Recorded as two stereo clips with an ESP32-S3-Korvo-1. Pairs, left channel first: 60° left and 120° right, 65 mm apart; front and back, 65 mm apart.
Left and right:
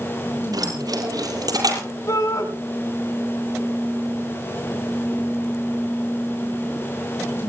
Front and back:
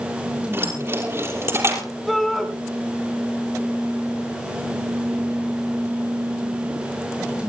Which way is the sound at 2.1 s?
90° left.